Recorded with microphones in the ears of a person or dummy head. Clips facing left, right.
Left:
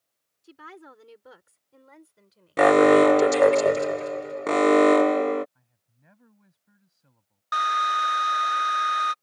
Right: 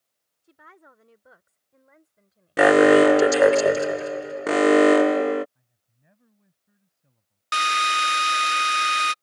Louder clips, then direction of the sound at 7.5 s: Right 1 dB; 30° right (ahead or behind).